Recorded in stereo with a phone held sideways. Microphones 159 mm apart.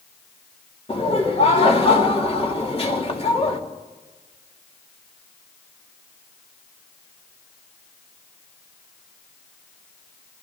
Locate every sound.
0.9 s laughter: 40° left (ahead or behind), 2.5 m